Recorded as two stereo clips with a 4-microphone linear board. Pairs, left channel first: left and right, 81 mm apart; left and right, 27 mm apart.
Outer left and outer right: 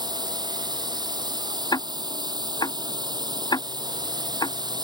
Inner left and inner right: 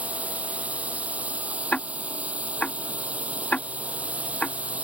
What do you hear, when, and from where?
0.0 s a drone: 55° right (ahead or behind)
1.7 s ticking: 55° left (ahead or behind)